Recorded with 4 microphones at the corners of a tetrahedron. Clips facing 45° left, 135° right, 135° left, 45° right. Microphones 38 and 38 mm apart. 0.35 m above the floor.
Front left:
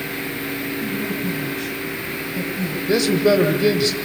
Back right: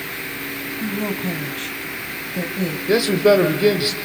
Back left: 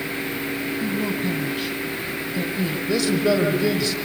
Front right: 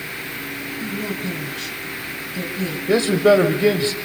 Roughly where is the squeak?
No squeak in this recording.